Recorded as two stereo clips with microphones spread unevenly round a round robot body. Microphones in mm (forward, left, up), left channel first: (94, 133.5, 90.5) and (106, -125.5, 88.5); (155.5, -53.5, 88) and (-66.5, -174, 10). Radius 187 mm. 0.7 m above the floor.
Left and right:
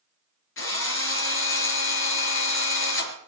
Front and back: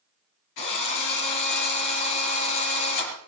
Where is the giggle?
I don't hear a giggle.